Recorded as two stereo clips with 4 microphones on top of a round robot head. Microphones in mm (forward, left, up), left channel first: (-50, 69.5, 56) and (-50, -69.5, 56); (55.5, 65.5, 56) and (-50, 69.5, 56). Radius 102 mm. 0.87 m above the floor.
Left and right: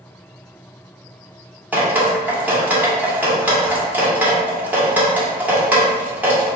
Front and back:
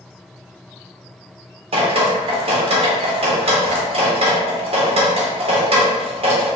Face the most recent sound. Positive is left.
turn(degrees=-170)